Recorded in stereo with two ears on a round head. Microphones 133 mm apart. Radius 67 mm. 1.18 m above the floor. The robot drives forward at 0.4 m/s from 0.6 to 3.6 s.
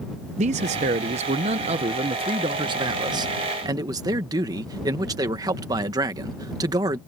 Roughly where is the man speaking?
Right.